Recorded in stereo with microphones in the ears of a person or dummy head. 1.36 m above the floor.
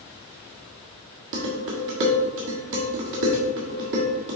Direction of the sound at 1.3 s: 60° right (ahead or behind).